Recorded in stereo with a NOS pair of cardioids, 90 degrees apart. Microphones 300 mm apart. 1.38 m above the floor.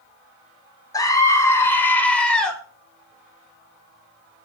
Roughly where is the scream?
Ahead.